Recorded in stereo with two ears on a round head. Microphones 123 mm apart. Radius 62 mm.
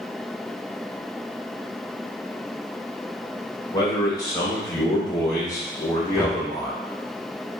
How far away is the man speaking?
About 1.2 m.